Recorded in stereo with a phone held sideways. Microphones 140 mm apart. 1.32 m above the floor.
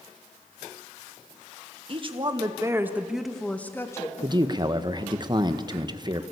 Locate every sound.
1.9 s a woman speaking: 40° right (ahead or behind), 2.0 m; by 4.1 s 25° left (ahead or behind), 2.0 m
4.2 s a man speaking: 30° right (ahead or behind), 1.3 m